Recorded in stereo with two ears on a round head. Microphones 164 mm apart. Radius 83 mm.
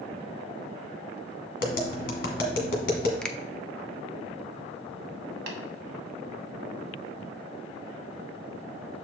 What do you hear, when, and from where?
1.6 s tapping: 50° left (ahead or behind), 1.5 m
3.2 s a finger snap: 5° left (ahead or behind), 0.5 m
5.5 s tapping: 60° right (ahead or behind), 1.9 m